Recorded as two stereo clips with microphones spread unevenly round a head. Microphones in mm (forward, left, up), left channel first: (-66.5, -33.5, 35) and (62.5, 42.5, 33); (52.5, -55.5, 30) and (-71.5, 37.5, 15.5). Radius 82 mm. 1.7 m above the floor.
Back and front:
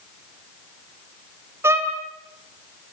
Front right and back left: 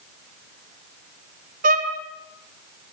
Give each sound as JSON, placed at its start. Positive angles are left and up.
{"t": 1.6, "sound": "a violin", "azimuth_deg": 105, "distance_m": 2.5}